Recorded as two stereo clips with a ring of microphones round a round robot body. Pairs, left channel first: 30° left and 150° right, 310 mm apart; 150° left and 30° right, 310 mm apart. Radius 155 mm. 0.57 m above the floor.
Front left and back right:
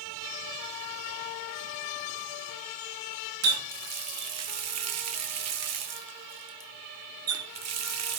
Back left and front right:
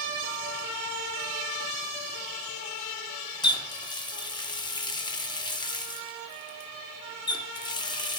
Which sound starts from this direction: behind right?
A running tap, at 3.4 s.